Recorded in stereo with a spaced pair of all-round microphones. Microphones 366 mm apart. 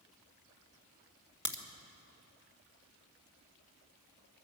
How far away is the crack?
About 1.7 m.